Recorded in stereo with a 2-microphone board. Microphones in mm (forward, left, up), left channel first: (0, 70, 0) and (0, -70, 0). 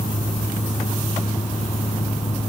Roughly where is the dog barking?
I don't hear a dog barking.